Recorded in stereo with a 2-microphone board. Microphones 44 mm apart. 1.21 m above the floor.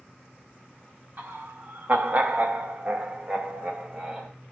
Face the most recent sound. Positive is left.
turn(degrees=-15)  # may be behind; listen again after turning